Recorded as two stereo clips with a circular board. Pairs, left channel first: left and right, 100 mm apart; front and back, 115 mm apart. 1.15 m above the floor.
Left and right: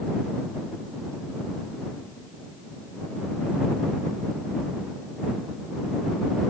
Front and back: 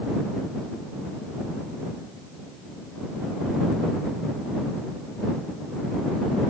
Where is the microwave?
I don't hear a microwave.